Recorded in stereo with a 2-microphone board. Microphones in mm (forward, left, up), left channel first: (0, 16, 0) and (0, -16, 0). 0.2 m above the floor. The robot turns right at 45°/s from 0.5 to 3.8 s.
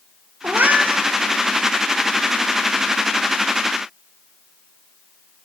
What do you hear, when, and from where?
0.4 s a cat meowing: 80° right, 0.6 m; by 1.0 s 55° right (ahead or behind), 0.6 m